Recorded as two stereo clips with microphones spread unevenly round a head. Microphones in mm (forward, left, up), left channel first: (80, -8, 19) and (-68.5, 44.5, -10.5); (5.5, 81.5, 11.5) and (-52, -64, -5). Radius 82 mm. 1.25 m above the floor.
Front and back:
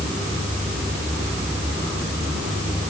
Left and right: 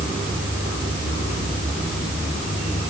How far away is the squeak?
I don't hear a squeak.